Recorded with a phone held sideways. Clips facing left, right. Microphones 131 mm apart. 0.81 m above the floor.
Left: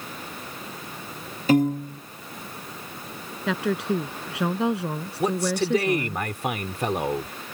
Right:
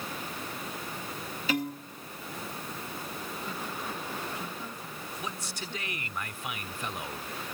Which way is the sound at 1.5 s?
45° left (ahead or behind).